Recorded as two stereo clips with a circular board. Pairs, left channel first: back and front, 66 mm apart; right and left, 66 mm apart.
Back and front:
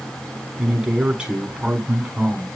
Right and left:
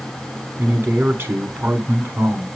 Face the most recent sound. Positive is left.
turn(degrees=70)